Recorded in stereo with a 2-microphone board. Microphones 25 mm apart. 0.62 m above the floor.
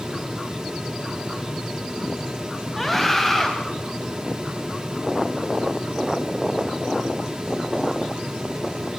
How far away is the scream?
About 3.5 m.